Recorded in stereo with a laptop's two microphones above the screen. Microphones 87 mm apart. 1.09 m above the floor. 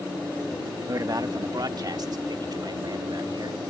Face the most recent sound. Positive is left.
turn(degrees=-55)  # may be behind; listen again after turning